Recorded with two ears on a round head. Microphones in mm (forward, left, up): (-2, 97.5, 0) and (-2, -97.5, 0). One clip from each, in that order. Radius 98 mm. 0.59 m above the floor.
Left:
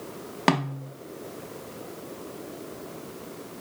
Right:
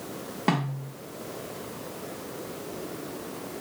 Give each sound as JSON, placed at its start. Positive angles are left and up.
{"t": 0.5, "sound": "a snare drum", "side_deg": 45, "distance_m": 0.6}